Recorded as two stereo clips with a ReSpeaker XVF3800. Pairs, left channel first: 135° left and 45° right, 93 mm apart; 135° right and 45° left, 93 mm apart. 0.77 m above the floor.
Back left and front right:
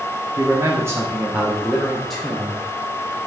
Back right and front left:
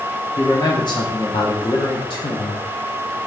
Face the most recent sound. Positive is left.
turn(degrees=-165)